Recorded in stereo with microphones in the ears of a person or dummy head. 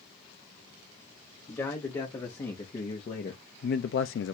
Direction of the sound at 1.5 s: 15° left (ahead or behind).